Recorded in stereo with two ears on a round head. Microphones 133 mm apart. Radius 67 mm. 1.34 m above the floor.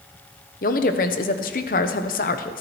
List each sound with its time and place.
0.6 s a woman speaking: 60° left (ahead or behind), 1.0 m